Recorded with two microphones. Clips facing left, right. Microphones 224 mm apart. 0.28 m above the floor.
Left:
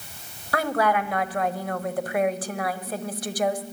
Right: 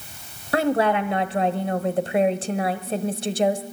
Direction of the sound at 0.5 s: 25° right (ahead or behind).